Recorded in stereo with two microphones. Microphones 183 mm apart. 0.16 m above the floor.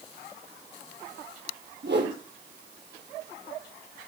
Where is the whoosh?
75° right (ahead or behind), 6 m.